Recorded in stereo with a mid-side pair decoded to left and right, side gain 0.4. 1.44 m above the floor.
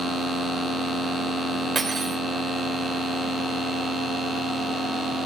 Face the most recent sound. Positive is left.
turn(degrees=-35)